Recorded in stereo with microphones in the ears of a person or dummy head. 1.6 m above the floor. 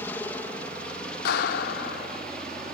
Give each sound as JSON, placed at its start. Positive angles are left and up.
{"t": 0.0, "sound": "a helicopter", "side_deg": 10}
{"t": 1.2, "sound": "a clap", "side_deg": 55}